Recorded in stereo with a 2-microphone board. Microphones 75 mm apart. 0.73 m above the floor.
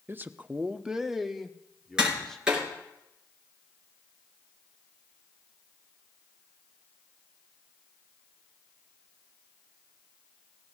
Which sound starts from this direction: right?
A man speaking, at 0.1 s.